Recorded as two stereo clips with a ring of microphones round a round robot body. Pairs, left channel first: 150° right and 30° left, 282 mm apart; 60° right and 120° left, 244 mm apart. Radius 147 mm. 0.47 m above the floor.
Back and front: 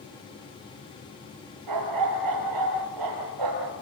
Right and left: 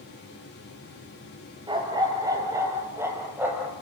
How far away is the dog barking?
About 5.5 m.